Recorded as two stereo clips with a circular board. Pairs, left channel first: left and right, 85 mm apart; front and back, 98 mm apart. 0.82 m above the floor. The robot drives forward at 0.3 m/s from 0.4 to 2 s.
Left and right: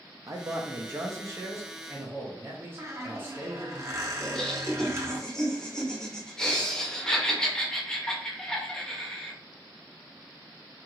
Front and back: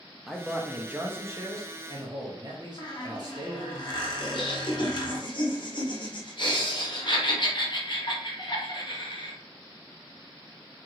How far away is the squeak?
About 0.7 m.